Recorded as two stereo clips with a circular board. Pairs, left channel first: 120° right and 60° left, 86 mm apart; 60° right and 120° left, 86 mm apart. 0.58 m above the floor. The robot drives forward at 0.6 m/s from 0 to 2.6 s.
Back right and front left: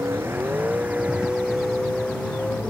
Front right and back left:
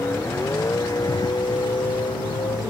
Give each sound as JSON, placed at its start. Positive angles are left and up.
{"t": 0.0, "sound": "a vehicle", "azimuth_deg": 0}